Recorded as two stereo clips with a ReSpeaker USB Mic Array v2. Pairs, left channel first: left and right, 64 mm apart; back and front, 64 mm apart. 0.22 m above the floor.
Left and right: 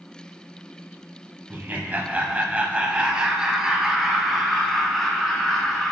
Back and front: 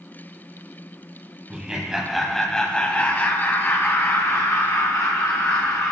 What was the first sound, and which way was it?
Laughter, 60° right.